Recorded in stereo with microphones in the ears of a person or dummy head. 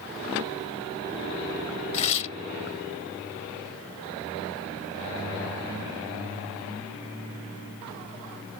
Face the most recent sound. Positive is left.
turn(degrees=30)  # may be behind; listen again after turning